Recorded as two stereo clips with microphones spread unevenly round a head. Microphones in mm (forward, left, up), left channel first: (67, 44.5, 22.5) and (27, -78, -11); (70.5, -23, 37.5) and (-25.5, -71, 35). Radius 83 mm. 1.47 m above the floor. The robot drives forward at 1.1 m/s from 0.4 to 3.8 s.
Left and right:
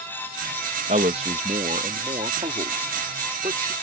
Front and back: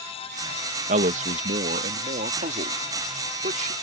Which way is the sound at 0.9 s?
160° right.